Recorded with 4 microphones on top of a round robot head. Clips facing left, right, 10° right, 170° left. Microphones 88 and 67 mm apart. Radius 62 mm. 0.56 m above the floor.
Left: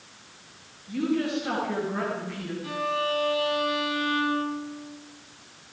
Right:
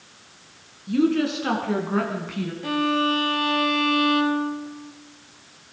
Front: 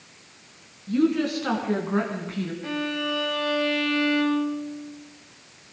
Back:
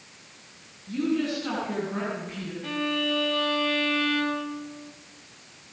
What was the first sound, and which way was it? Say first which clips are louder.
A woman speaking: right 6 dB, front 4 dB; 65° right.